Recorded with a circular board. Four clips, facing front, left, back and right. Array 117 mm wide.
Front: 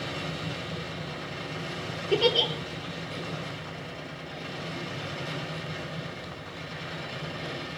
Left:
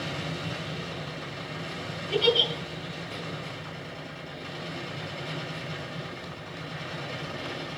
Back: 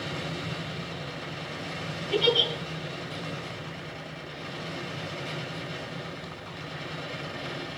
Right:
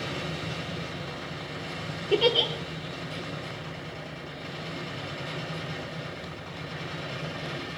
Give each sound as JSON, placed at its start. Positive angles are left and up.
{"t": 2.1, "sound": "a giggle", "azimuth_deg": -50, "distance_m": 2.0}